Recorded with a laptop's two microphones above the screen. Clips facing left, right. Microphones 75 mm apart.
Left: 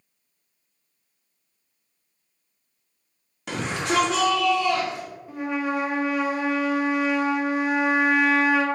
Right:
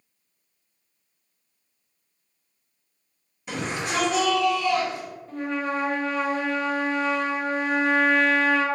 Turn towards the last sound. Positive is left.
turn(degrees=10)  # may be behind; listen again after turning